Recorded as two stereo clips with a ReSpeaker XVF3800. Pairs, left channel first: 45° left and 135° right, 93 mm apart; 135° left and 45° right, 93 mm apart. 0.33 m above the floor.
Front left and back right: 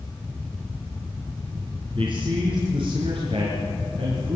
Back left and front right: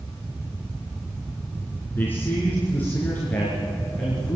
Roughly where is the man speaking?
Behind.